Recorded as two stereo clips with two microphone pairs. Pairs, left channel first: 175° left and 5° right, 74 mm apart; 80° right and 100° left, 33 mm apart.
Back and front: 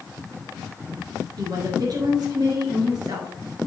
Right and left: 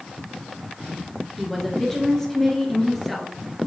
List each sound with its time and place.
1.4 s a woman speaking: straight ahead, 2 m